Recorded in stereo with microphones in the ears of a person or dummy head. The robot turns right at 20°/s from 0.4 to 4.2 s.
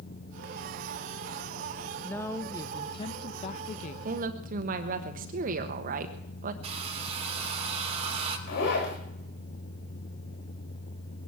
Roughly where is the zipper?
Left.